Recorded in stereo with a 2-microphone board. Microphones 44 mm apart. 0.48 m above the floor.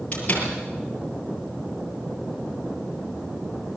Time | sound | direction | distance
0.1 | a door slam | 30° left (ahead or behind) | 6.5 m